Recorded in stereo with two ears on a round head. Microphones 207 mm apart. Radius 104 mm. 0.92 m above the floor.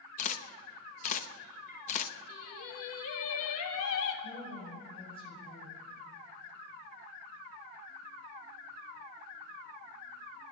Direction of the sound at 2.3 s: 65° left (ahead or behind).